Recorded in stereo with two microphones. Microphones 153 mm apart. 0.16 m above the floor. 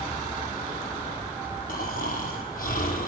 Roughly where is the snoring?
Left.